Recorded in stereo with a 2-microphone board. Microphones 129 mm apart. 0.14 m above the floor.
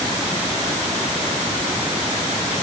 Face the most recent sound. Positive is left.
No sound to turn to.